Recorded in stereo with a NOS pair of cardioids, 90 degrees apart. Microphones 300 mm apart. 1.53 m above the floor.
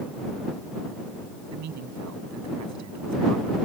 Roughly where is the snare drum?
I don't hear a snare drum.